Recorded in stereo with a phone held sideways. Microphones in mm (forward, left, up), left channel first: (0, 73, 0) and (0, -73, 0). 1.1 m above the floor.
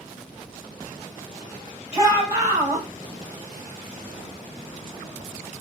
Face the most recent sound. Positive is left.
turn(degrees=-20)  # may be behind; listen again after turning